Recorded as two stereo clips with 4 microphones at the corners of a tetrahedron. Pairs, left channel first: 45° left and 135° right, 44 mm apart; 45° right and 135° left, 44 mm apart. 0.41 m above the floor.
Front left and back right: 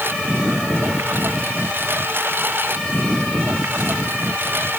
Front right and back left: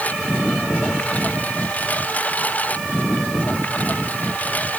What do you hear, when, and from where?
0.0 s a lawn mower: 95° right